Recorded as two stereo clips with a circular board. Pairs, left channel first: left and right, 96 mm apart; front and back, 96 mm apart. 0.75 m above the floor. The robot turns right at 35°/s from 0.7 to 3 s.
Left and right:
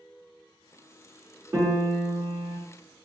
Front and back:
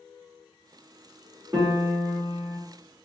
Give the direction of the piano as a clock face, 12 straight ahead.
5 o'clock.